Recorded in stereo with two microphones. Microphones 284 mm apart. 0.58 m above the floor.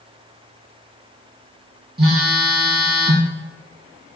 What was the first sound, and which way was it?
A phone buzzing, 35° right (ahead or behind).